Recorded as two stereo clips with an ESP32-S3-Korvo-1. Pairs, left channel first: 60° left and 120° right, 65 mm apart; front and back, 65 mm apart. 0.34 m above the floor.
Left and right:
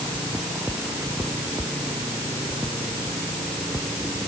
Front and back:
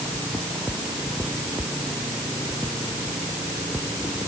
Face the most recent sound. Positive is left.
No sound to turn to.